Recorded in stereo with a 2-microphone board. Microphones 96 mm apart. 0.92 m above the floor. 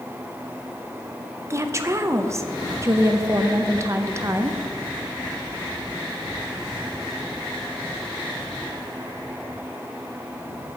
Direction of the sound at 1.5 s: 30° right (ahead or behind).